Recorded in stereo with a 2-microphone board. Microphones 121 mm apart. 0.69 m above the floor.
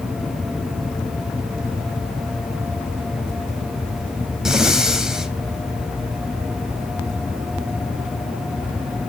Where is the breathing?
5° right (ahead or behind), 1.0 m.